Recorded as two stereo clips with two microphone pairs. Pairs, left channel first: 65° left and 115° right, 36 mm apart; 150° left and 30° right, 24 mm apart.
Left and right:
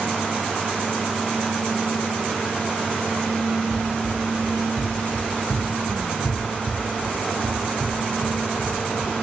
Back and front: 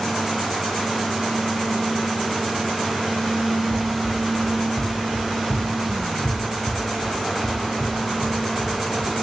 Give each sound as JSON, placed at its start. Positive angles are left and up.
{"t": 3.7, "sound": "running footsteps", "azimuth_deg": 150, "distance_m": 2.5}